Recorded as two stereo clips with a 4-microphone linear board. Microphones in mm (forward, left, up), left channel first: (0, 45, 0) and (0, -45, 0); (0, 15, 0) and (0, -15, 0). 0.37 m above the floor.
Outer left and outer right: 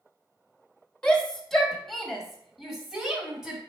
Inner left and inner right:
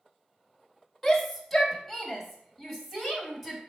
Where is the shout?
10° left (ahead or behind), 1.8 m; by 3.6 s 5° right (ahead or behind), 3 m.